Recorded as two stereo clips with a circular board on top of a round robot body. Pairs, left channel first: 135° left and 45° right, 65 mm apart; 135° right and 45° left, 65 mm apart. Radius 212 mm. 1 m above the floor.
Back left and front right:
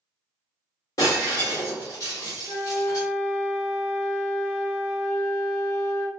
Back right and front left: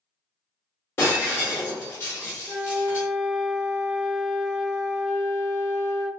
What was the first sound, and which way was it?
Breaking glass, 170° left.